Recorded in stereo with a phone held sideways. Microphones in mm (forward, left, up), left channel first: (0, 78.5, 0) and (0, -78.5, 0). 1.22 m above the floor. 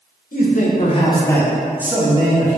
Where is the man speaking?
65° left (ahead or behind), 0.7 m; by 2.6 s 35° right (ahead or behind), 0.9 m.